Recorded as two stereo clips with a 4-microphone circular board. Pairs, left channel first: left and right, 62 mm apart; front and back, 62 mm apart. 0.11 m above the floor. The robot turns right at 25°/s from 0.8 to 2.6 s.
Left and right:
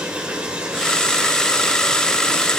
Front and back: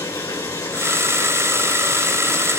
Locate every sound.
0.0 s running water: 20° right, 3.5 m; by 2.6 s 25° left, 3.5 m